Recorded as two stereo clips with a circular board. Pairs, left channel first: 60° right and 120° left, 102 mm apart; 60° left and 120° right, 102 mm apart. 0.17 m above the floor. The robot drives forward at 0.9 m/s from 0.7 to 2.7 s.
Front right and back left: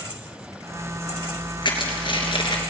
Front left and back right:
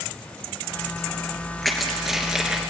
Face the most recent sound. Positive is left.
turn(degrees=-40)